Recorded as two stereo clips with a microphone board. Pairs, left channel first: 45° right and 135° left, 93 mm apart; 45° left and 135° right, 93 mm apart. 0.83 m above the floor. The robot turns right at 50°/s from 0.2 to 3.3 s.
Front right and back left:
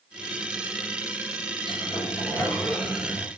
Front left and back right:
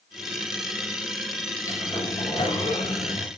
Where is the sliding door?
10° right, 4 m; by 3.3 s 70° left, 4 m.